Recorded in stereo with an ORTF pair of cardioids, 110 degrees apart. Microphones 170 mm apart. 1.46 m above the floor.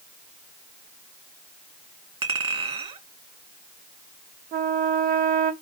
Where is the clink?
35° right, 2 m.